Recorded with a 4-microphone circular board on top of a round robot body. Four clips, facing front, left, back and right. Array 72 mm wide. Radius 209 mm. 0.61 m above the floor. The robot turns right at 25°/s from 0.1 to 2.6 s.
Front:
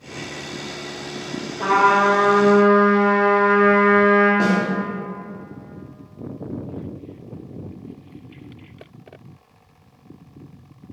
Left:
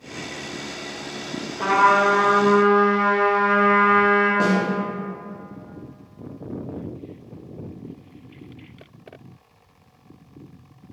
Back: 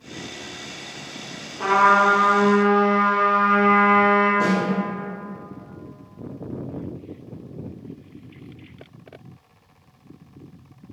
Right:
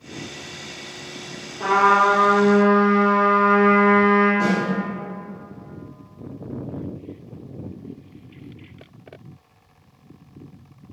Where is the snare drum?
50° left, 0.9 m.